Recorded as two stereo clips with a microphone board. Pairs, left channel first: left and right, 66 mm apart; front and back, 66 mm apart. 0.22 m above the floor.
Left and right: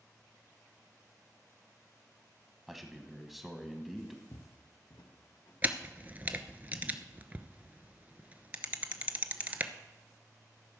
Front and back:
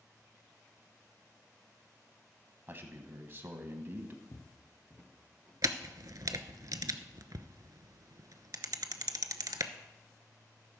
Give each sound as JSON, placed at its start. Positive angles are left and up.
{"t": 2.7, "sound": "a man speaking", "azimuth_deg": -175, "distance_m": 1.1}
{"t": 4.3, "sound": "footsteps", "azimuth_deg": 50, "distance_m": 0.7}
{"t": 5.6, "sound": "a camera shutter", "azimuth_deg": -155, "distance_m": 0.7}